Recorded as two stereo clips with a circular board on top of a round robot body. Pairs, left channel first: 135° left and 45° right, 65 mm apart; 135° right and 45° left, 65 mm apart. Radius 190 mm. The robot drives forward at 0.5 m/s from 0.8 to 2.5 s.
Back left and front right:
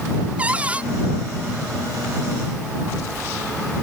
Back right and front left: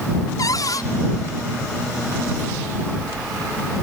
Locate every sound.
0.4 s a cupboard door: 115° right